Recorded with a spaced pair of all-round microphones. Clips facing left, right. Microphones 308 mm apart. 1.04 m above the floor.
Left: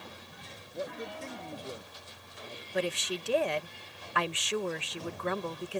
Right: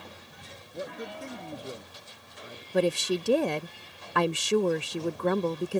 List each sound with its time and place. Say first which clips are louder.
0.7 s a man speaking: right 1 dB; 15° right (ahead or behind)
2.7 s a woman speaking: right 8 dB; 50° right (ahead or behind)